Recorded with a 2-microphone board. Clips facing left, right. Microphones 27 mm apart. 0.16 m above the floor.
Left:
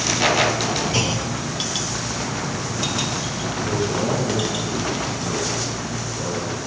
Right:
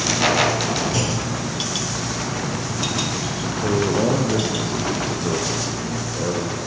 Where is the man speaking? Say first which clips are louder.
Right 4 dB; 55° right (ahead or behind), 2.5 m.